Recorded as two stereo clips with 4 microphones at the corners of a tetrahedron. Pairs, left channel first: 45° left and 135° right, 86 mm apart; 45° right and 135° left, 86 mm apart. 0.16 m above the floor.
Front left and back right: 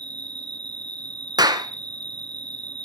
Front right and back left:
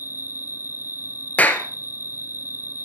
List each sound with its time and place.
0.0 s an insect: 165° right, 0.8 m
1.4 s a clap: 110° right, 1.6 m